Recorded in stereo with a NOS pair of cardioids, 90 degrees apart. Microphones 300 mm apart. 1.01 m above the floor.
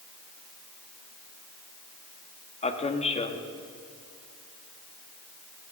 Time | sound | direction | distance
2.6 | a man speaking | 20° left | 1.4 m